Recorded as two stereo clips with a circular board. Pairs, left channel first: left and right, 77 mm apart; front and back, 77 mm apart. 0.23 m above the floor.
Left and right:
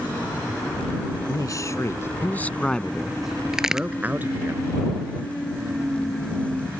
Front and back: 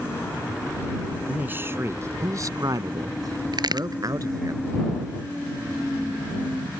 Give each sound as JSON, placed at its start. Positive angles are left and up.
{"t": 1.3, "sound": "a man speaking", "azimuth_deg": 115}
{"t": 3.5, "sound": "a crack", "azimuth_deg": -170}